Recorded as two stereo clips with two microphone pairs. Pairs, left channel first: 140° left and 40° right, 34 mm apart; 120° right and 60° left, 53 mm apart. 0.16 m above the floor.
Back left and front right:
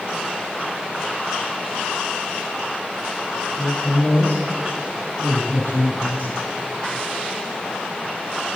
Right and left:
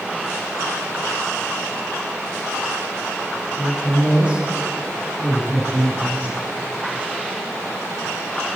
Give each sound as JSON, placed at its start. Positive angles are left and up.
{"t": 3.6, "sound": "a woman speaking", "azimuth_deg": 125, "distance_m": 5.0}